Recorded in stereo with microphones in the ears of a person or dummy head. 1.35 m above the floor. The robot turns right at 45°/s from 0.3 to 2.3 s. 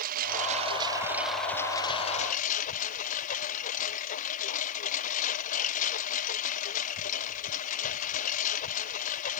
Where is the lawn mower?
45° right; by 9.4 s 45° left.